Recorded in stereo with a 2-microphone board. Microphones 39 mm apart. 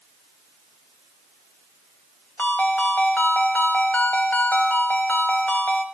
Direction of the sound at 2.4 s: 45° left (ahead or behind).